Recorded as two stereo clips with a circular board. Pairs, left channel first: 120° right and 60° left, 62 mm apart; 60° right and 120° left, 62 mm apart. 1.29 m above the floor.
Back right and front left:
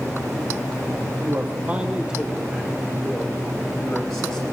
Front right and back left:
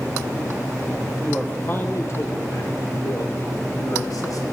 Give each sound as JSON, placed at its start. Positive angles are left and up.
{"t": 1.3, "sound": "a man speaking", "azimuth_deg": 10, "distance_m": 1.0}